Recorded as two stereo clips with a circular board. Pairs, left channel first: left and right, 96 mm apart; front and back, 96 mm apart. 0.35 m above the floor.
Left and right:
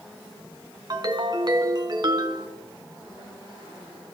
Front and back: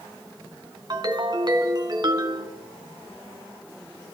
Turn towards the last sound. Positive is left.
turn(degrees=-135)